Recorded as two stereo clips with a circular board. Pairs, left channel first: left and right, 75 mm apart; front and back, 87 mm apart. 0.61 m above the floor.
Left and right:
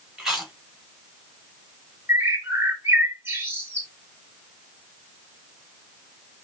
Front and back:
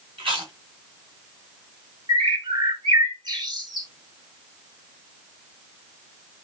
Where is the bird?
150° right, 1.9 m.